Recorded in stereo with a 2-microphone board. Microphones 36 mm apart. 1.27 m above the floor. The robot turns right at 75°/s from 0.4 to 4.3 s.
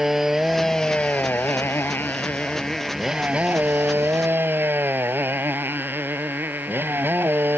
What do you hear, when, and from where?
0.0 s a motorcycle: 10° right; by 7.6 s 75° right